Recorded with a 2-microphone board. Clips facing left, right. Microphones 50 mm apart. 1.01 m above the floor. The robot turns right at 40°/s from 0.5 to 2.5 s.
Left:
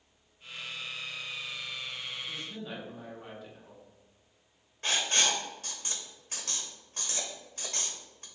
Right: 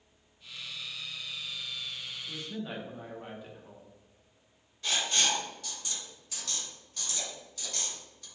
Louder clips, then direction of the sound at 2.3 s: Right 1 dB; 5° right (ahead or behind).